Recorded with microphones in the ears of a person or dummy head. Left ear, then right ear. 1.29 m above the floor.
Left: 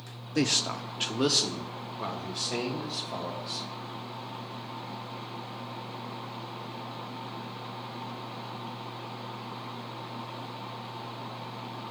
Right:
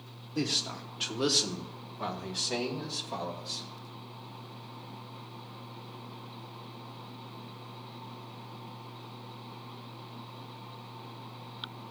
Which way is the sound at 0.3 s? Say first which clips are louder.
Left 4 dB; 50° left (ahead or behind).